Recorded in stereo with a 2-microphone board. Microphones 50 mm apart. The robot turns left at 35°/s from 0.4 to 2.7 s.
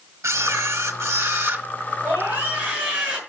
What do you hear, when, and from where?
0.2 s a camera shutter: 90° right, 1.0 m; by 1.7 s 135° right, 1.0 m
2.0 s a scream: 55° right (ahead or behind), 7 m; by 3.2 s 30° right (ahead or behind), 7 m